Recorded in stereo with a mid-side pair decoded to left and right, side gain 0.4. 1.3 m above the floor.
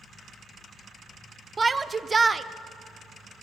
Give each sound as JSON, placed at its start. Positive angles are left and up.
{"t": 1.6, "sound": "a shout", "azimuth_deg": -30, "distance_m": 0.5}